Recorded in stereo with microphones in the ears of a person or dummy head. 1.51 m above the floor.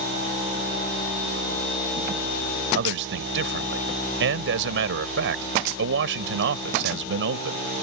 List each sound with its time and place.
2.7 s a man speaking: 75° right (ahead or behind)